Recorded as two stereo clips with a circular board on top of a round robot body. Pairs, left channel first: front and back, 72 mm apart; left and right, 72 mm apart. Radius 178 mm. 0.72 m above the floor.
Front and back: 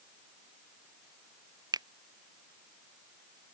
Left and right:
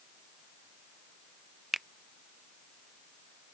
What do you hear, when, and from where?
1.7 s a finger snap: 175° right